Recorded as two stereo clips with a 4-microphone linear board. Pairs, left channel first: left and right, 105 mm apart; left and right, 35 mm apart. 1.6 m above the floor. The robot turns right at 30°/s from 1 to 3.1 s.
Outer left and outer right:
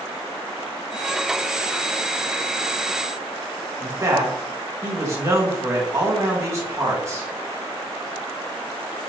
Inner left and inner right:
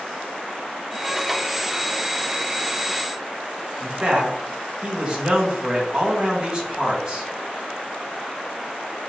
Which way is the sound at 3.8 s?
30° right (ahead or behind).